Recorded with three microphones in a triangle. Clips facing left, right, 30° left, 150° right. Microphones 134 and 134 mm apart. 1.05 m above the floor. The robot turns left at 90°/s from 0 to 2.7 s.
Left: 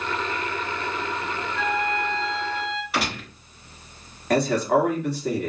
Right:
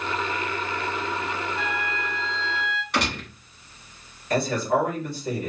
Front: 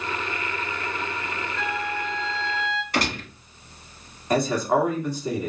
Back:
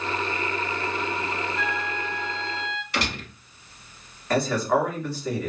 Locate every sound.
1.6 s a flute: 110° right, 2.5 m; by 2.8 s 145° left, 2.5 m
2.9 s a gunshot: 5° left, 1.5 m
4.3 s a man speaking: 105° left, 2 m